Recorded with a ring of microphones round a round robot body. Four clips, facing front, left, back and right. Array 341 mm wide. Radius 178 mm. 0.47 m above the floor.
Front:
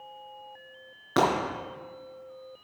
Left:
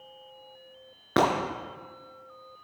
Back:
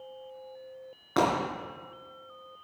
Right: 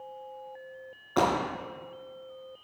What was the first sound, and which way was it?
Breaking glass, 85° left.